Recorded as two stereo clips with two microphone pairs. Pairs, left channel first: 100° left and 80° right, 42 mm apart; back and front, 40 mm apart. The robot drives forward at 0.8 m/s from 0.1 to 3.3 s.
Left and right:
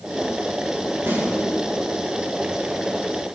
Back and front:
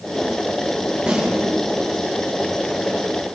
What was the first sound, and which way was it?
A snare drum, 65° right.